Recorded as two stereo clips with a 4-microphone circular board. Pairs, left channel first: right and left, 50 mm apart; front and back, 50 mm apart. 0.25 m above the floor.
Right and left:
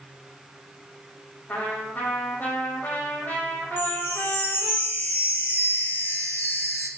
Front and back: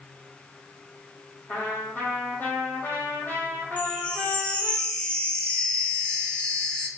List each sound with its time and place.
1.5 s a trumpet: 45° right, 5.5 m
3.8 s a chime: 60° right, 3 m